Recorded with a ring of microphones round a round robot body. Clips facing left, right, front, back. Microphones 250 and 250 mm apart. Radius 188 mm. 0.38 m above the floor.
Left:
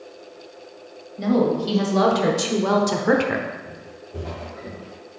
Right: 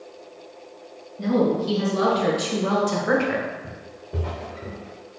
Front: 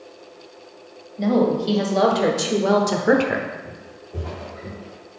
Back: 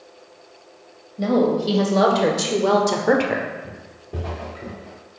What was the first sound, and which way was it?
A woman speaking, 100° left.